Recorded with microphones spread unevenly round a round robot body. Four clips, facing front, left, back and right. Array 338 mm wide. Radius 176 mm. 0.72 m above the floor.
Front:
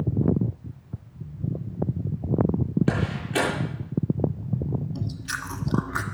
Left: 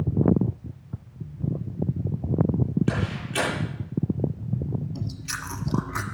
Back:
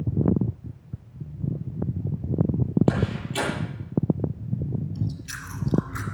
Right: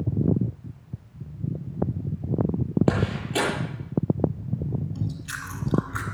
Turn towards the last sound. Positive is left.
turn(degrees=25)